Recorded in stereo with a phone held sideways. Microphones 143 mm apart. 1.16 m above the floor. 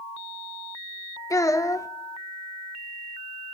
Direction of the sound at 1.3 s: 20° left (ahead or behind).